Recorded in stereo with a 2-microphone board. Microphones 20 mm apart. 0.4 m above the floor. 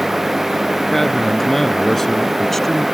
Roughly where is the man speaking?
Centre.